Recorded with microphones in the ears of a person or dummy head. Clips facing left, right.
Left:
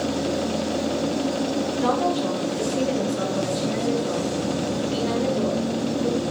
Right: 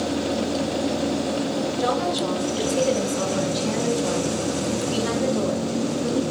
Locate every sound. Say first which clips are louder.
1.8 s a woman speaking: left 3 dB; 65° right (ahead or behind), 3.5 m